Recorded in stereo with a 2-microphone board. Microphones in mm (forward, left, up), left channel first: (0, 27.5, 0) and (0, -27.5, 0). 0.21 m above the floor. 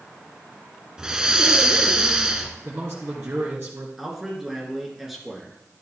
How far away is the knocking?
I don't hear knocking.